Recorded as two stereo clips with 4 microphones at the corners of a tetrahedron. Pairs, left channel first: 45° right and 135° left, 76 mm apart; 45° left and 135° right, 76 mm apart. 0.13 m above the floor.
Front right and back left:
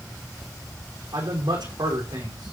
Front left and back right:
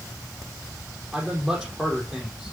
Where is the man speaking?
140° left, 6 m.